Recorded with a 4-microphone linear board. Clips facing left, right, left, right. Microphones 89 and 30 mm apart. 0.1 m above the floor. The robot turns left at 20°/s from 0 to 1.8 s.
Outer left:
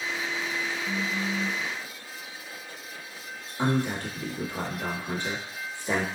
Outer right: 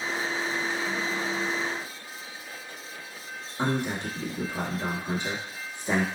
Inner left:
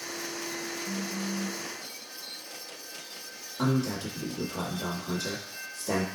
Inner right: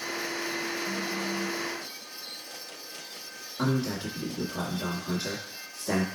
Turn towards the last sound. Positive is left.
turn(degrees=-20)  # may be behind; listen again after turning